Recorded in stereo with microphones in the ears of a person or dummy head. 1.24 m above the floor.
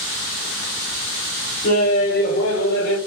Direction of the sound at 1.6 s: 60° left (ahead or behind).